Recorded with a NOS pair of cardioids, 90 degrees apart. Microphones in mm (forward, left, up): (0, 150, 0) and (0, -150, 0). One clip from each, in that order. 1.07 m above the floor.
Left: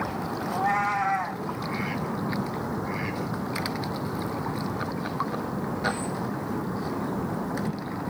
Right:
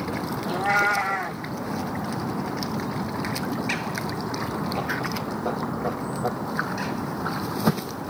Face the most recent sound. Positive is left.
turn(degrees=-20)